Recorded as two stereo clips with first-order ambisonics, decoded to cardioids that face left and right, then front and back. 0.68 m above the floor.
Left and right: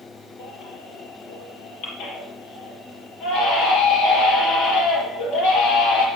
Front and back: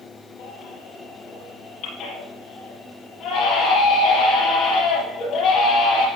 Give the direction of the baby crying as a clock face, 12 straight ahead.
10 o'clock.